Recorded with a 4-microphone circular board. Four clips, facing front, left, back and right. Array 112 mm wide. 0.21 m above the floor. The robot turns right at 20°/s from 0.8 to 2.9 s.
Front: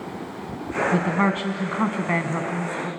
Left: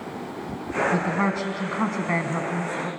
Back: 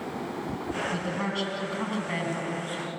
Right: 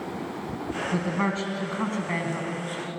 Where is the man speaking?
5° left, 1.6 m; by 2.9 s 45° left, 1.6 m.